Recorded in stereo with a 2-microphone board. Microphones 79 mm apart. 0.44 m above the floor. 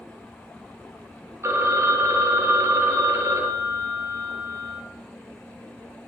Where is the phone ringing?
35° right (ahead or behind), 0.8 m.